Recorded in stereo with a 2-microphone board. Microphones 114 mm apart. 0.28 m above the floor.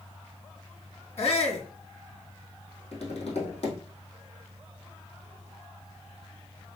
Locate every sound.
1.2 s a shout: 65° left (ahead or behind), 1.9 m
2.9 s tapping: 60° left (ahead or behind), 2.5 m